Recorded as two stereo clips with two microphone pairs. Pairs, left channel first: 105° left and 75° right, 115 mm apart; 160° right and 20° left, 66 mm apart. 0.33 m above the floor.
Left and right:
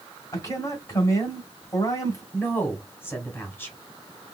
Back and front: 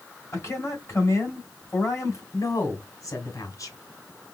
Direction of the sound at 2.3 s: 175° left.